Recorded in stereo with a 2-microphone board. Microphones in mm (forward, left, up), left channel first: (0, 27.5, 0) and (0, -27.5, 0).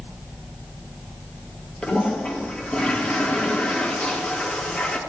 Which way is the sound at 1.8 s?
20° left (ahead or behind).